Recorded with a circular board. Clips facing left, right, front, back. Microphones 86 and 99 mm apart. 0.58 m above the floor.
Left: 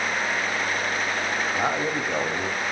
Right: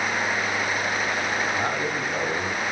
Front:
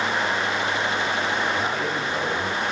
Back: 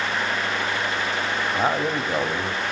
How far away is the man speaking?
About 1.5 m.